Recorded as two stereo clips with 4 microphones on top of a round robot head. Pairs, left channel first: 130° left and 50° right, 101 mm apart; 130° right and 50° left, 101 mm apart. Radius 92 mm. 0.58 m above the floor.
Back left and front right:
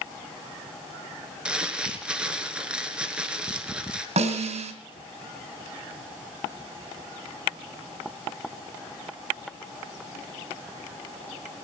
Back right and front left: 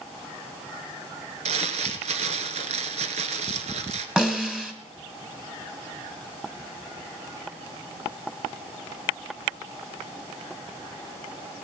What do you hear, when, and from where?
1.4 s crumpling: 30° left, 1.9 m
4.2 s a snare drum: 35° right, 3 m